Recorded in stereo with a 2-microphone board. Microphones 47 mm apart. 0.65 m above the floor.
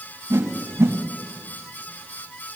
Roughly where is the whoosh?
Right.